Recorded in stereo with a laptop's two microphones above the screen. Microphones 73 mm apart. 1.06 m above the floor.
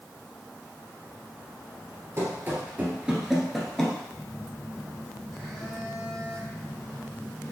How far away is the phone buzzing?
About 1.5 m.